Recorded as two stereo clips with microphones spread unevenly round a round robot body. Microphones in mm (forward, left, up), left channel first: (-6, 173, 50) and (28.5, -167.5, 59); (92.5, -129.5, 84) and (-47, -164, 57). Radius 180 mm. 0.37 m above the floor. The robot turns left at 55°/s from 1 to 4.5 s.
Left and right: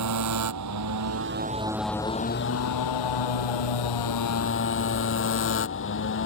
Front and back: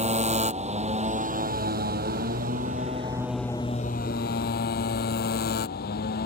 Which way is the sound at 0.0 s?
125° right.